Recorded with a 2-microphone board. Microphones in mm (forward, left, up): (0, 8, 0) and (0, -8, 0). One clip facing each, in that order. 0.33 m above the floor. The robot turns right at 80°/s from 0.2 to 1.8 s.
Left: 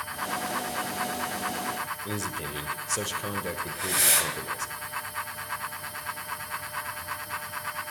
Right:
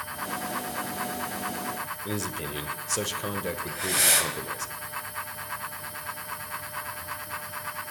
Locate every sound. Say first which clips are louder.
2.0 s a man speaking: right 1 dB; 10° right (ahead or behind), 0.8 m
3.7 s breathing: right 2 dB; 15° right (ahead or behind), 1.7 m